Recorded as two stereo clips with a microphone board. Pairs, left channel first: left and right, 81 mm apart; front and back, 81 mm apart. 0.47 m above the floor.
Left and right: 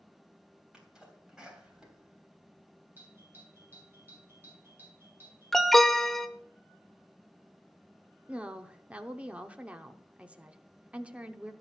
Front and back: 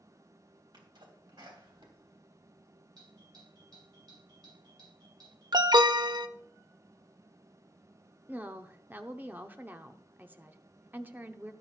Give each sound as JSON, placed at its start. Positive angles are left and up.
{"t": 0.7, "sound": "a sneeze", "azimuth_deg": -170, "distance_m": 3.0}
{"t": 3.0, "sound": "a doorbell", "azimuth_deg": -155, "distance_m": 4.0}
{"t": 5.5, "sound": "an alarm", "azimuth_deg": 175, "distance_m": 0.6}
{"t": 8.3, "sound": "a woman speaking", "azimuth_deg": -145, "distance_m": 0.8}